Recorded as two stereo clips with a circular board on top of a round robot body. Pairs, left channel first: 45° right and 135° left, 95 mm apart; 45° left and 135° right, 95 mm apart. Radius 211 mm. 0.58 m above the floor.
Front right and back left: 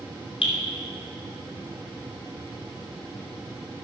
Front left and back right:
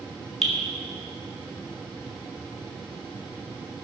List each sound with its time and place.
0.4 s dripping: 40° right, 2.5 m